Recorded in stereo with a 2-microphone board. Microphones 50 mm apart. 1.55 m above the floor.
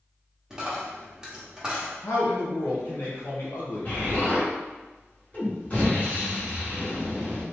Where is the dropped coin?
15° right (ahead or behind), 1.0 m.